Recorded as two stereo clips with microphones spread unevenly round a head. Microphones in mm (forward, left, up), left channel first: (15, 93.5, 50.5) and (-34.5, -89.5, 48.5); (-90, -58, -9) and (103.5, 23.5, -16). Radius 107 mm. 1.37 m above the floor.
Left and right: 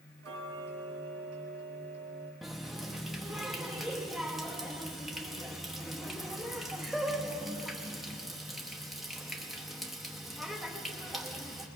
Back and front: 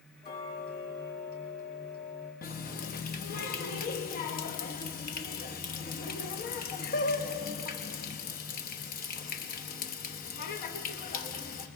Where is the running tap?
165° left, 0.9 m.